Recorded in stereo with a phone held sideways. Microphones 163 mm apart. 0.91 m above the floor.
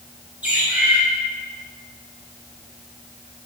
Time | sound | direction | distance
0.4 | a bird | 10° right (ahead or behind) | 1.9 m